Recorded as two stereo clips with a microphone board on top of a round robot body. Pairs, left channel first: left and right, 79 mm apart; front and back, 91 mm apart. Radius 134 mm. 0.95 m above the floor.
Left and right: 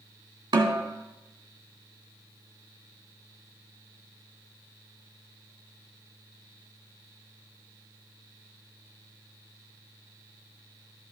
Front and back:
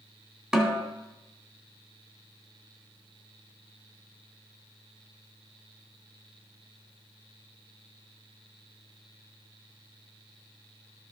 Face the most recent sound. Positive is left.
turn(degrees=-100)